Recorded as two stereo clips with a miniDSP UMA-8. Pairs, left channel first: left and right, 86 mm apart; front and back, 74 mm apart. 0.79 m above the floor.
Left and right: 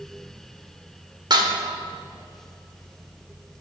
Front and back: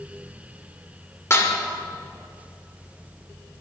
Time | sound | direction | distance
1.3 | dishes clattering | 55° right | 1.7 m